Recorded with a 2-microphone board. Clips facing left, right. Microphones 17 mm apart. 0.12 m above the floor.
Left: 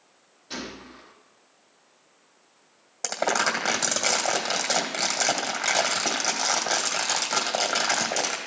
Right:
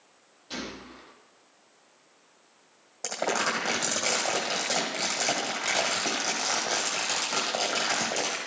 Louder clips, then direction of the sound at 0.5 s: Left 1 dB; 5° right (ahead or behind).